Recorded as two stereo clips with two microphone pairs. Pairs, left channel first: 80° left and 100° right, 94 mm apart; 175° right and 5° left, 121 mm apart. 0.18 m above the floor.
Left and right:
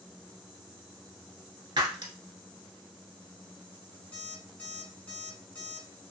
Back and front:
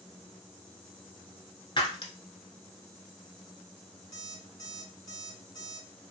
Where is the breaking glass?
135° right, 0.6 m.